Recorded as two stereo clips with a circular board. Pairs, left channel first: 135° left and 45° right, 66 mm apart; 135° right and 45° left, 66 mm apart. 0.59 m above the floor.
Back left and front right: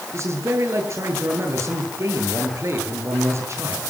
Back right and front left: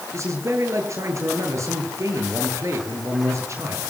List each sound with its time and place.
0.1 s a man speaking: straight ahead, 10 m